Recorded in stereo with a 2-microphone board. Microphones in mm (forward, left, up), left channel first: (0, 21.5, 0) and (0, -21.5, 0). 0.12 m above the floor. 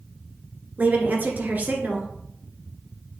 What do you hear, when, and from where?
0.8 s a woman speaking: 40° right (ahead or behind), 1.6 m